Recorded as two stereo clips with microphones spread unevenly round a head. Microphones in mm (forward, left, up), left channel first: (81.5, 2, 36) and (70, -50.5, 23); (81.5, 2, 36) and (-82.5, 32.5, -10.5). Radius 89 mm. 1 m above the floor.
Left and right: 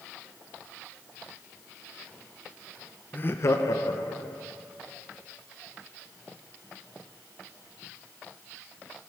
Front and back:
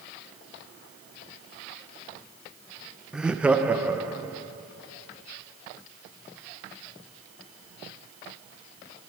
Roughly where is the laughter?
Behind left.